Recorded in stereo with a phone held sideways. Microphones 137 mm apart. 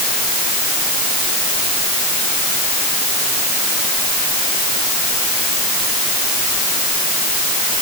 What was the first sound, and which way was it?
Only background noise.